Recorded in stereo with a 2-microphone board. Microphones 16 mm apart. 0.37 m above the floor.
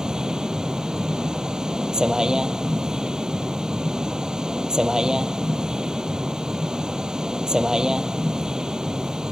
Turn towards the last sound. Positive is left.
turn(degrees=-45)  # may be behind; listen again after turning